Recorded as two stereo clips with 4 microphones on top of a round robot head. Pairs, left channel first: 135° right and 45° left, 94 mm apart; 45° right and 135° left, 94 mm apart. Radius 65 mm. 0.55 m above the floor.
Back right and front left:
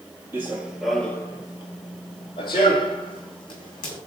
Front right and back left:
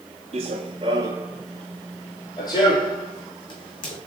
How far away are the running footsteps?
About 0.8 m.